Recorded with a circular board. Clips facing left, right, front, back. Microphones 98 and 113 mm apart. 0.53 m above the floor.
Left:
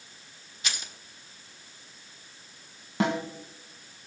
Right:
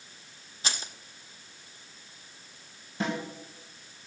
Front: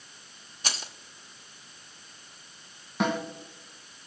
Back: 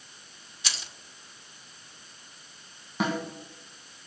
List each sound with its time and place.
0.6 s keys jangling: 40° right, 0.7 m
3.0 s a snare drum: 90° left, 1.8 m